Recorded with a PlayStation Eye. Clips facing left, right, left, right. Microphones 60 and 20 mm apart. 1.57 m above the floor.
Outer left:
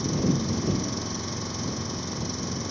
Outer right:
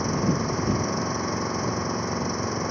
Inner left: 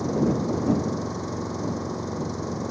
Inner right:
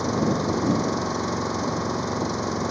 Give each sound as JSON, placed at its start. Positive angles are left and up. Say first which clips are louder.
{"t": 0.0, "sound": "an engine running", "louder": "outer right 1 dB, inner right 1 dB", "side_deg": -35}